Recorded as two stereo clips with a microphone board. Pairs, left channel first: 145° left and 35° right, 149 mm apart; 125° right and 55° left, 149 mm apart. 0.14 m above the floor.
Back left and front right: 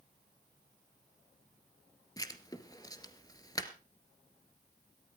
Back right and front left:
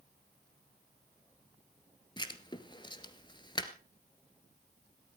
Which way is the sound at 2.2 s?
165° right.